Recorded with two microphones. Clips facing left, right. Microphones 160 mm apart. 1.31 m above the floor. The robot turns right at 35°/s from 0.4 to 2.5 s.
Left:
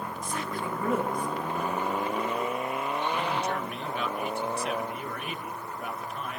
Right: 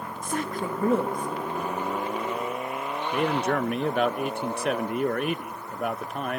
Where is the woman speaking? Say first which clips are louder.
Right 6 dB; 50° right, 1.8 m; by 1.6 s 10° right, 1.8 m.